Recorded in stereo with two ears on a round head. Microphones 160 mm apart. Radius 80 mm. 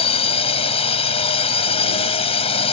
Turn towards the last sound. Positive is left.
turn(degrees=35)  # may be behind; listen again after turning